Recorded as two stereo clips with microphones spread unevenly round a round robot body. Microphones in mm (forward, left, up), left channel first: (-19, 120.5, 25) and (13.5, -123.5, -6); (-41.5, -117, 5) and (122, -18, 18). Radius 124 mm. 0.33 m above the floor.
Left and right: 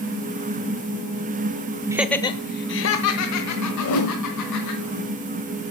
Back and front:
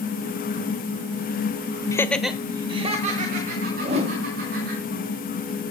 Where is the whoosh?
90° left, 2 m.